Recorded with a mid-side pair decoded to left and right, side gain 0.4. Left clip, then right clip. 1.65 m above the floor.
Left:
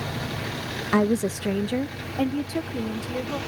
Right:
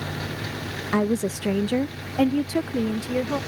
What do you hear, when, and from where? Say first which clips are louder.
0.9 s a woman speaking: left 1 dB; 15° left; by 3.4 s 50° right